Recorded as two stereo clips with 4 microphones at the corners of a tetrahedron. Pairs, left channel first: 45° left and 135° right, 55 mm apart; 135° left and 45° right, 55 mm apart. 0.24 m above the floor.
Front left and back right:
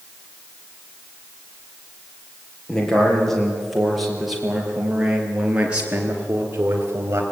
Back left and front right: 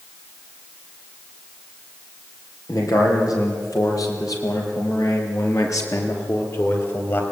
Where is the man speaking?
125° left, 7 m; by 7.2 s straight behind, 4.5 m.